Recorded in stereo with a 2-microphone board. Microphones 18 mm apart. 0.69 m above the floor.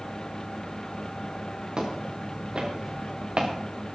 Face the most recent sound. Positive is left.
turn(degrees=-65)  # may be behind; listen again after turning